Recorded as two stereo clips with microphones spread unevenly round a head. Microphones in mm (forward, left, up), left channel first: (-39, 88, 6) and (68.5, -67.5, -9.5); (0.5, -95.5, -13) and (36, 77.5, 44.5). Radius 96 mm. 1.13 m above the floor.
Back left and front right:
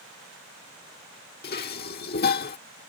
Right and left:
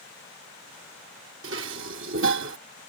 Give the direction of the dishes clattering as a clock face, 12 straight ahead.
9 o'clock.